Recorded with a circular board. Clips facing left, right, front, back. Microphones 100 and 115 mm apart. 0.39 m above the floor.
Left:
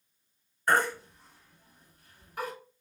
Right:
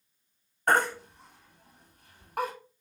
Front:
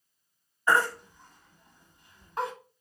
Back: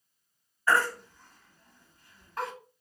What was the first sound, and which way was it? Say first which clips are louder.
A baby crying: right 1 dB, front 1 dB; 65° right.